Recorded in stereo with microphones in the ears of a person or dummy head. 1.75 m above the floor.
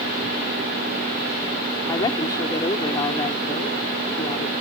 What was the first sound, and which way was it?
A woman speaking, 20° left (ahead or behind).